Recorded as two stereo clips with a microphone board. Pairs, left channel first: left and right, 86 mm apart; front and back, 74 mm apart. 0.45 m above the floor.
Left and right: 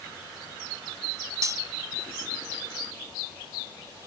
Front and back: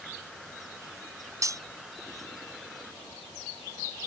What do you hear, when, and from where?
1.4 s cutlery clinking: 140° right